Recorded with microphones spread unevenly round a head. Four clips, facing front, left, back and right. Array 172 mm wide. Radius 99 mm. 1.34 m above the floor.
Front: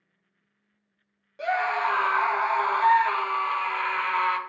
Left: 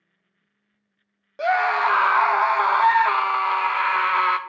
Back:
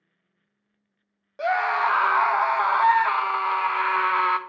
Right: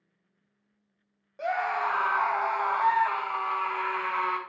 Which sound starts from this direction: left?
A scream, at 1.4 s.